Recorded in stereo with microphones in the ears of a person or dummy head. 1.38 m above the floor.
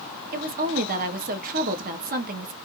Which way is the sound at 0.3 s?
45° right (ahead or behind).